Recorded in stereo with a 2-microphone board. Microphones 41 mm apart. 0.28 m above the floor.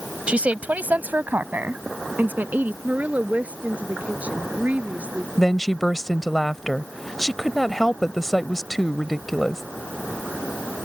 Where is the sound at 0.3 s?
30° right (ahead or behind); by 2.7 s 45° right (ahead or behind).